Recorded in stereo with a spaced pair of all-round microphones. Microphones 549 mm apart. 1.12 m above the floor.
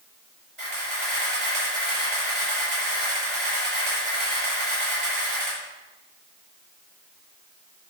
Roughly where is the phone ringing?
No phone ringing in this recording.